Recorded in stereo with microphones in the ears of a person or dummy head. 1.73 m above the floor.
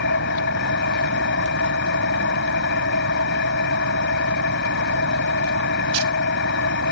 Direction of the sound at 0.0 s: 70° left (ahead or behind).